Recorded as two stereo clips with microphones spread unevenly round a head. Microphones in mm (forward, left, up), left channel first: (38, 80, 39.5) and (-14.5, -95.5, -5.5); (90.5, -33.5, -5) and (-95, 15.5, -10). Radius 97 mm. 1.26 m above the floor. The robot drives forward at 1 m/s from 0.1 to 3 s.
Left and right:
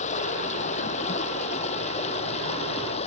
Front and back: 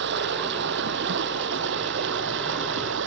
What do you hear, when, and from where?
0.0 s running water: 130° left